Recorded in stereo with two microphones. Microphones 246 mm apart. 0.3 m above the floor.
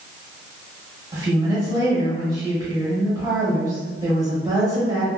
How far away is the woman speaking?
About 1.6 m.